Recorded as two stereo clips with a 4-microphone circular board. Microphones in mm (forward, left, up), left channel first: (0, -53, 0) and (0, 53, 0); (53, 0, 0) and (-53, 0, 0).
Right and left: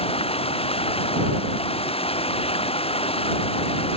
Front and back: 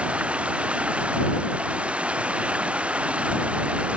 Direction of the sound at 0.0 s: 100° right.